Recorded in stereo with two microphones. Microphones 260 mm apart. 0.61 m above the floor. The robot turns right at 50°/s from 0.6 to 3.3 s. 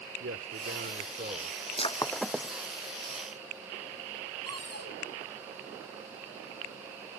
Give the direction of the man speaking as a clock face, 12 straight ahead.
2 o'clock.